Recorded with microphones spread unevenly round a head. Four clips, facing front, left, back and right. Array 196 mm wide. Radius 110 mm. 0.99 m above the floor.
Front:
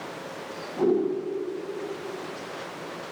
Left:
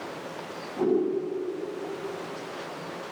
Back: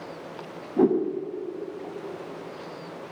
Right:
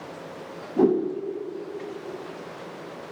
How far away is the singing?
I don't hear singing.